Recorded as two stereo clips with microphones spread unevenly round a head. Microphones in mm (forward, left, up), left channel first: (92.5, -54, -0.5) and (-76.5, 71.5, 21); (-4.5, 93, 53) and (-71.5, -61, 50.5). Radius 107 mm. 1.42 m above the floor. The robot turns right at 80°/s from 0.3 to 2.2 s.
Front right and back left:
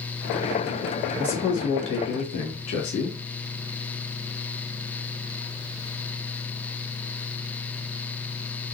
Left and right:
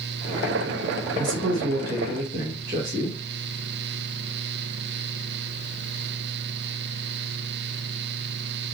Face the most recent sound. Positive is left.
turn(degrees=-45)